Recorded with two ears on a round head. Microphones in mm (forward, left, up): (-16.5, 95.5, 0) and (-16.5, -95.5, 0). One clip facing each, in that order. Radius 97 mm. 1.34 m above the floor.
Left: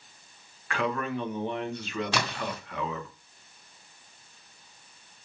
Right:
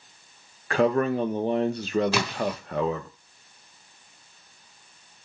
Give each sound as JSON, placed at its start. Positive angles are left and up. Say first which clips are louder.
{"t": 0.7, "sound": "a man speaking", "louder": "right 8 dB", "side_deg": -30, "distance_m": 0.8}
{"t": 2.1, "sound": "a splash", "louder": "right 5 dB", "side_deg": -5, "distance_m": 2.5}